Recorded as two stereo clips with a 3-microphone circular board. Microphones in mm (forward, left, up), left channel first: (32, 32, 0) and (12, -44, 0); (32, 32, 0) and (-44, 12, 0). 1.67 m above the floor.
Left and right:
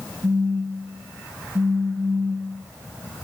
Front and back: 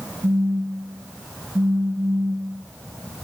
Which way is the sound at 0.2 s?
120° right.